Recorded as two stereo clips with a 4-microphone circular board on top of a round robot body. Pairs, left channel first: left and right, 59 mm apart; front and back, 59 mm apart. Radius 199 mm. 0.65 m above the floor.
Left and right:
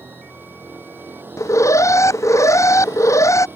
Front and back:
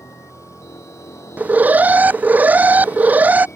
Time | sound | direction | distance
0.0 | a vehicle | 35° right | ?
1.4 | an alarm | 115° left | ?